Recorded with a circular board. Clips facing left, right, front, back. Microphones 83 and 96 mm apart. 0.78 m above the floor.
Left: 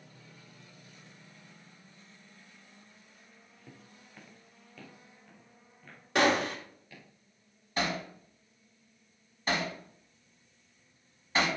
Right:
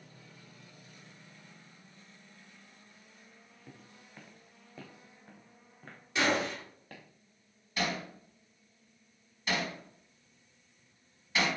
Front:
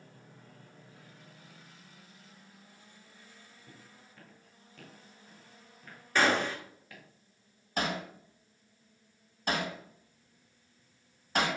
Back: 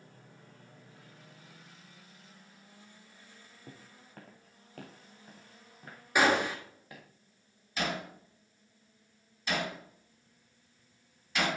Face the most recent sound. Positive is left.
turn(degrees=35)